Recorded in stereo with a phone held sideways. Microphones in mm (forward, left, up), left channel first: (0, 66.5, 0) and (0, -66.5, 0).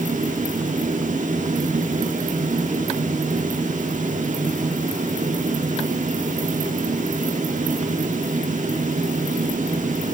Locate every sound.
0.0 s a fan: 70° right (ahead or behind), 2.5 m